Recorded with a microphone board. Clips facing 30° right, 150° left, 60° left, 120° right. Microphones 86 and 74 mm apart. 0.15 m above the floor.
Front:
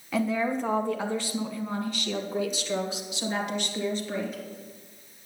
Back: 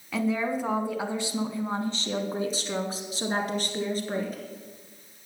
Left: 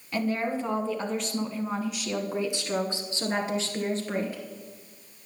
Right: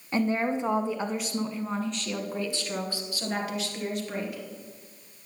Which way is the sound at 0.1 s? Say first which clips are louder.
Even, right 2 dB; 115° right.